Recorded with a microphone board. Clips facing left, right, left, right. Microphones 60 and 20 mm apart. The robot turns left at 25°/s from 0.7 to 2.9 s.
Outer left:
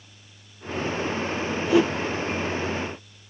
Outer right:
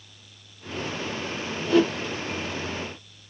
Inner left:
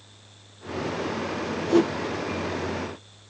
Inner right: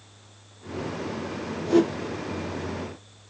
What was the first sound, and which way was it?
A whoosh, 15° left (ahead or behind).